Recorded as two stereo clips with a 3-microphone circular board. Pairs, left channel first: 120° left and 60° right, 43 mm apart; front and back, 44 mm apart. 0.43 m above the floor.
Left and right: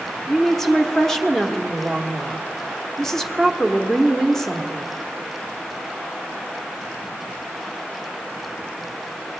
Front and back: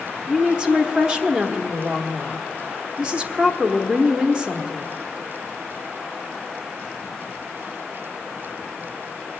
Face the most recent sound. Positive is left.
turn(degrees=-175)